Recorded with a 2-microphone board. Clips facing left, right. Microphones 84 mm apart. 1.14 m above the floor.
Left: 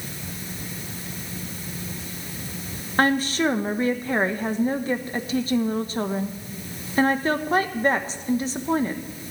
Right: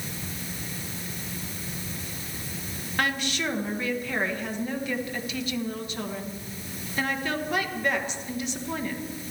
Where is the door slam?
No door slam in this recording.